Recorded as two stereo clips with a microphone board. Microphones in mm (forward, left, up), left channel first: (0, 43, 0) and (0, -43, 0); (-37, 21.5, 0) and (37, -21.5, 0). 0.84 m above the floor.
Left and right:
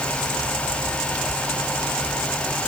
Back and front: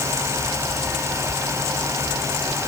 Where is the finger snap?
No finger snap in this recording.